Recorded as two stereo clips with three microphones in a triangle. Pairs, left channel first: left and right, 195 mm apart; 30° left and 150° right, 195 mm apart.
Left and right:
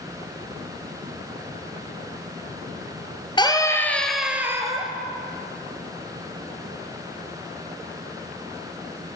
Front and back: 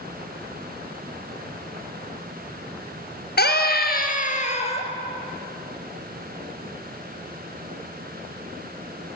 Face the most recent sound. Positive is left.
turn(degrees=-25)